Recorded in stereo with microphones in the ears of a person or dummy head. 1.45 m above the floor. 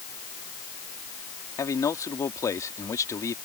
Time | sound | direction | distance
1.6 | a man speaking | 15° left (ahead or behind) | ?